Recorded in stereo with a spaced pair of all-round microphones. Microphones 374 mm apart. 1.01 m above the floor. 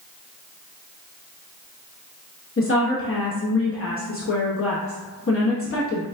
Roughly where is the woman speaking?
Left.